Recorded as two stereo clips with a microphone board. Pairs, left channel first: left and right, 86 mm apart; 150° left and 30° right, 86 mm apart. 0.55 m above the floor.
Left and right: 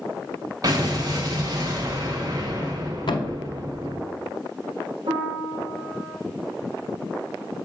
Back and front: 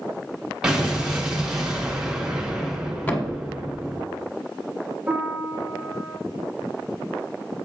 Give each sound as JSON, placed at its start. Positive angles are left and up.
{"t": 0.6, "sound": "an explosion", "azimuth_deg": -105, "distance_m": 1.6}
{"t": 3.1, "sound": "a thud", "azimuth_deg": 85, "distance_m": 0.8}
{"t": 5.1, "sound": "a piano", "azimuth_deg": -110, "distance_m": 1.9}